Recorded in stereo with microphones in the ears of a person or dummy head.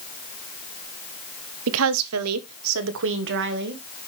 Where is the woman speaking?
70° right (ahead or behind), 0.8 m; by 3.8 s 55° right (ahead or behind), 1.4 m.